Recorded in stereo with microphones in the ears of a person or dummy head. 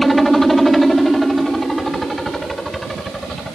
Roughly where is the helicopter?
Centre.